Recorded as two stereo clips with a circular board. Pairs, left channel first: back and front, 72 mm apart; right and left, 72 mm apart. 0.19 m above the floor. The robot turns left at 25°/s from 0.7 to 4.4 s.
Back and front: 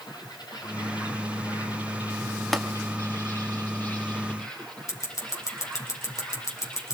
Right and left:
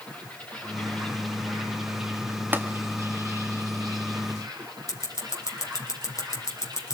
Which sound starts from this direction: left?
Tapping, at 2.5 s.